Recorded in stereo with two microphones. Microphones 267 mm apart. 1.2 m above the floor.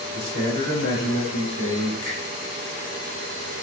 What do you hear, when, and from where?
0.1 s a man speaking: 80° left, 3.5 m
2.0 s a finger snap: 80° left, 4 m